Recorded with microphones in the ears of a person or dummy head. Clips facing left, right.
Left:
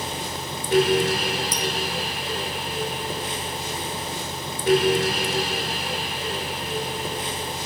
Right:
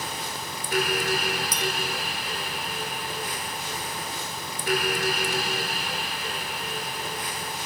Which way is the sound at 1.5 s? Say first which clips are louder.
Left 3 dB; 60° right (ahead or behind).